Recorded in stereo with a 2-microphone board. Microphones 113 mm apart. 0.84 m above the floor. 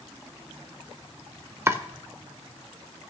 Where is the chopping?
20° right (ahead or behind), 0.8 m.